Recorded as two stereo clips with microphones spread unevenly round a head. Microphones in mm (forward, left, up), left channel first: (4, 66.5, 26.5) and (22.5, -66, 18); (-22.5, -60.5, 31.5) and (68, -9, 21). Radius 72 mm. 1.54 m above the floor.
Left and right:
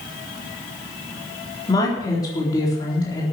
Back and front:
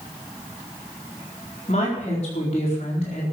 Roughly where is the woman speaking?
Behind.